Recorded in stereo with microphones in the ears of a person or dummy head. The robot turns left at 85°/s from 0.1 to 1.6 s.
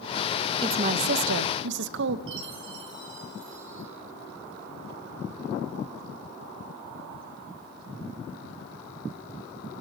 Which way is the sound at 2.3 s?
70° right (ahead or behind).